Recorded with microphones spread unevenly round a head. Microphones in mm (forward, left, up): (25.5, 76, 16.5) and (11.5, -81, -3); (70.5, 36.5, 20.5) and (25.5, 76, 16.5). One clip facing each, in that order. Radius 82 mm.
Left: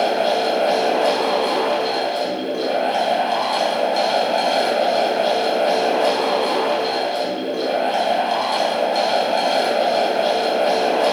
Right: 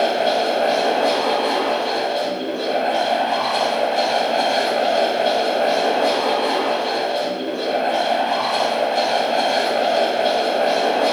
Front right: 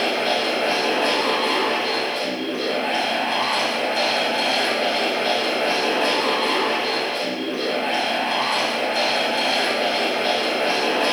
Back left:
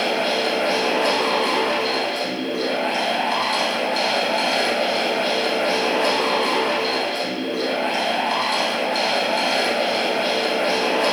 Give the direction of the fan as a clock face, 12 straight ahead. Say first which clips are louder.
Even, even; 8 o'clock.